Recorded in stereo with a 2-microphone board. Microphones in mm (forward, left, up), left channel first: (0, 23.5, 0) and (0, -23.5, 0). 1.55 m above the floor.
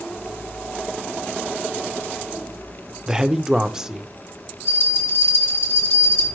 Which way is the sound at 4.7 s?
65° left (ahead or behind).